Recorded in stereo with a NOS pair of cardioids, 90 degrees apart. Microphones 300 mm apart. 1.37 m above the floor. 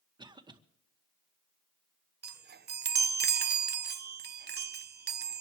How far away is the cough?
About 1.9 m.